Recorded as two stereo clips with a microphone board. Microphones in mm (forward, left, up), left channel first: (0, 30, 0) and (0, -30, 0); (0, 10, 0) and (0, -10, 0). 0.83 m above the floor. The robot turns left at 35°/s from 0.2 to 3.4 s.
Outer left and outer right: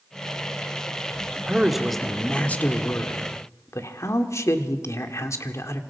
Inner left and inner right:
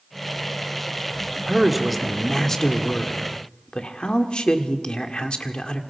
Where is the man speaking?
165° right, 1.7 m; by 5.8 s 125° left, 1.7 m.